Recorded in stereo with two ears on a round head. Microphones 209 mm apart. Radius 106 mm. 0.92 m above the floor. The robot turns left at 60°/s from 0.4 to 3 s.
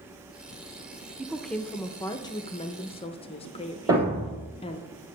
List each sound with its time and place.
1.2 s a woman speaking: 5° right (ahead or behind), 0.5 m; by 4.9 s 25° left (ahead or behind), 0.5 m
3.9 s a thud: 15° right (ahead or behind), 2.5 m